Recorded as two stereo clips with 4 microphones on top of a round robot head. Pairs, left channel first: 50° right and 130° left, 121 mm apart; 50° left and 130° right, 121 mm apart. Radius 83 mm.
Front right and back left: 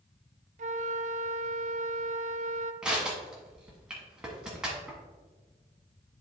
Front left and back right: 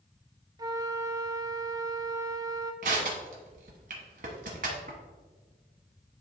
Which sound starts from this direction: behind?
A flute, at 0.6 s.